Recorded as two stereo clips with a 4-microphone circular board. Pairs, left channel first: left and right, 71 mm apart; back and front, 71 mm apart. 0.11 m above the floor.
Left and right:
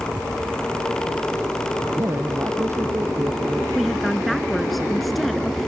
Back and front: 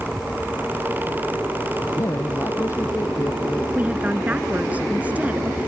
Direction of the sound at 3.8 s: Straight ahead.